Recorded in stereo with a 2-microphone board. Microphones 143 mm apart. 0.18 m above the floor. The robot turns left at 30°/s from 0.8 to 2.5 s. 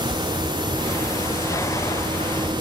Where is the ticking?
No ticking in this recording.